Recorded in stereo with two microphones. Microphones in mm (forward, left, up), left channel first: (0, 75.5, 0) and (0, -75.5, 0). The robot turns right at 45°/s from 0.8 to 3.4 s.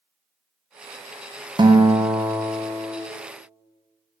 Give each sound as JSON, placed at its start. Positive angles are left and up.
{"t": 1.6, "sound": "a guitar", "azimuth_deg": -70, "distance_m": 0.6}